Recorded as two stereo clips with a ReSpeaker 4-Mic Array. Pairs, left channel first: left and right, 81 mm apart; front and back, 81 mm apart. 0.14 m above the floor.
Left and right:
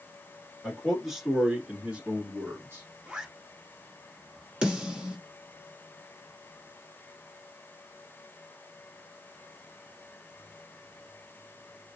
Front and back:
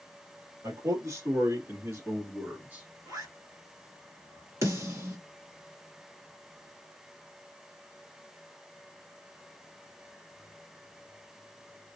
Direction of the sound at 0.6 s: 170° left.